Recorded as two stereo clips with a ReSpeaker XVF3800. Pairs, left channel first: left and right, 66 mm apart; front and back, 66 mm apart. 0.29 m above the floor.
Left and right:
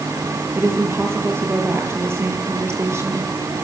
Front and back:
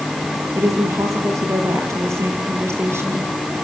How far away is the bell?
No bell in this recording.